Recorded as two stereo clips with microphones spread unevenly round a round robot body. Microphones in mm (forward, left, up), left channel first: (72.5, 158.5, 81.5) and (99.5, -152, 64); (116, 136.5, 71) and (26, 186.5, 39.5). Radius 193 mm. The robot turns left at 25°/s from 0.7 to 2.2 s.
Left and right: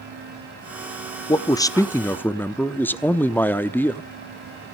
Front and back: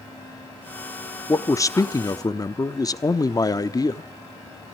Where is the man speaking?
35° left, 0.9 m; by 4.1 s 10° left, 0.9 m.